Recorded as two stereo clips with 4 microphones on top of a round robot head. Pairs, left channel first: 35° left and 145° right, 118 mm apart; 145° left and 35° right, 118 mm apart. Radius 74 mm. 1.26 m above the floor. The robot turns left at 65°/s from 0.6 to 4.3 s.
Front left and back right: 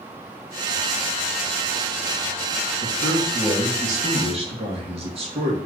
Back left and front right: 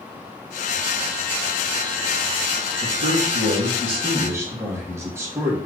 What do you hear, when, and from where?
2.8 s a man speaking: 10° right, 1.4 m; by 5.6 s 105° right, 1.4 m